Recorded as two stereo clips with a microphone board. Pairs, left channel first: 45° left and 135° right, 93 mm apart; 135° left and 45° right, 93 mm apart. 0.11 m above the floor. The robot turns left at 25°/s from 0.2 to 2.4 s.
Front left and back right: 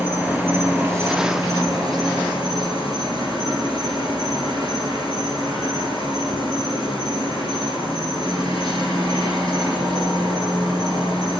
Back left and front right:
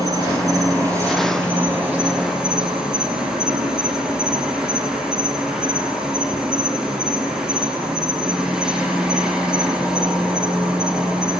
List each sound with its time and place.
0.0 s an insect: 70° right, 2 m; by 11.4 s 125° right, 2 m